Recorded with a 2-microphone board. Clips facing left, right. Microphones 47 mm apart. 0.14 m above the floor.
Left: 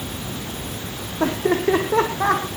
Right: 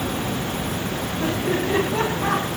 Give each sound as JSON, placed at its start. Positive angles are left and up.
{"t": 1.2, "sound": "laughter", "side_deg": 70, "distance_m": 5.5}